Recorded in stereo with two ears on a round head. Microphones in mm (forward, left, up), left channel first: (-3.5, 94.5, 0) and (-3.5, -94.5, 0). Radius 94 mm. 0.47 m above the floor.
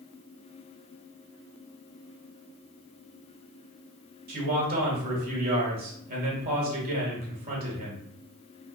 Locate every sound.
4.3 s a man speaking: 45° right (ahead or behind), 1.5 m